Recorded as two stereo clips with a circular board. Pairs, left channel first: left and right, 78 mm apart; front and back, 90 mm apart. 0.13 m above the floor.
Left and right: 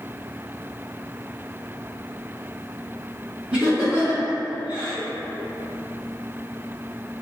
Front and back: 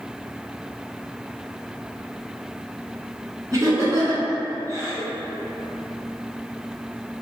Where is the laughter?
155° right, 1.6 m.